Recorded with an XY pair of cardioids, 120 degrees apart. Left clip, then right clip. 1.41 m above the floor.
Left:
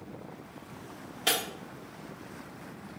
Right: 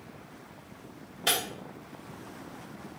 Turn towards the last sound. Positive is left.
turn(degrees=15)